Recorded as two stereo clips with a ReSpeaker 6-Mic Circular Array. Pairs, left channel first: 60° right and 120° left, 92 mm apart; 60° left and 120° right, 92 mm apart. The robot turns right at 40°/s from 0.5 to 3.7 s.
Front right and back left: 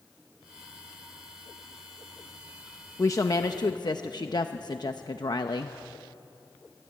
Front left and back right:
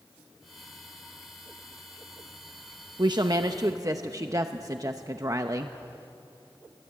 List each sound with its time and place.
3.0 s a woman speaking: 110° right, 0.8 m; by 5.8 s 80° right, 0.8 m